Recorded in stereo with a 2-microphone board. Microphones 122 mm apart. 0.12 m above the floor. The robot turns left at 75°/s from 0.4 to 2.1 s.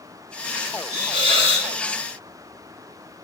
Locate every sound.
0.9 s a hiss: 35° right, 1.3 m; by 1.7 s 95° right, 1.3 m